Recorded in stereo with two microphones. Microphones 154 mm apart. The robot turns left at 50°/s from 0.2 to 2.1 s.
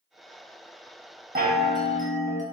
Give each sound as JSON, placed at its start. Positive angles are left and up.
{"t": 1.4, "sound": "a chime", "azimuth_deg": -85, "distance_m": 0.5}